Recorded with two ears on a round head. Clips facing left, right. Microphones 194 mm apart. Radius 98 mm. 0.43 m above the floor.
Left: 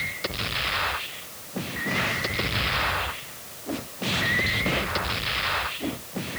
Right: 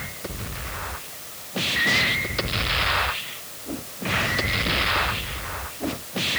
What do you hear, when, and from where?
Only background noise.